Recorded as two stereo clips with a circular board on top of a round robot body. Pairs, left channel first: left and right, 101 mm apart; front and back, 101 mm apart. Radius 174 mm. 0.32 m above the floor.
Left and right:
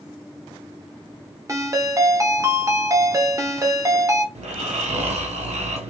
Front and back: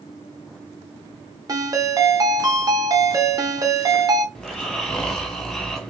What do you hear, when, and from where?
1.5 s a ringtone: 140° right, 1.2 m
4.3 s snoring: 85° right, 0.9 m